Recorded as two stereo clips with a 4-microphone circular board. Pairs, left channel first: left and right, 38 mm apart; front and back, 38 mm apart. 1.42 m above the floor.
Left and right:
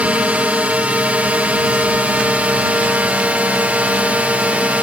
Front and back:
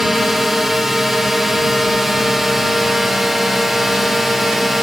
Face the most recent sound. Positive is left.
turn(degrees=-95)